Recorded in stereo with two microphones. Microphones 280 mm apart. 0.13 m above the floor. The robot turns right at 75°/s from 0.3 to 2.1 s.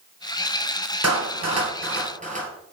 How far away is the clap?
About 1.8 m.